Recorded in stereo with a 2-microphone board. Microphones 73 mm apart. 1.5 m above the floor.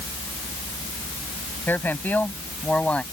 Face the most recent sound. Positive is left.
turn(degrees=15)  # may be behind; listen again after turning